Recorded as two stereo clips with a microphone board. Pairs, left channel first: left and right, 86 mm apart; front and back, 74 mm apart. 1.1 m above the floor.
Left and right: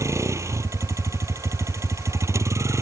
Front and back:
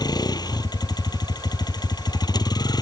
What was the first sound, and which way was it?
A vehicle, 30° right.